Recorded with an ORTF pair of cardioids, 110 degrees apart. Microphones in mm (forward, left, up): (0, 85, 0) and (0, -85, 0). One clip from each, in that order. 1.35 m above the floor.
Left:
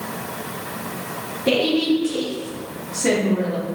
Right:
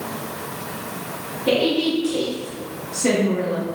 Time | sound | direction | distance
1.5 | a woman speaking | 20° left | 0.7 m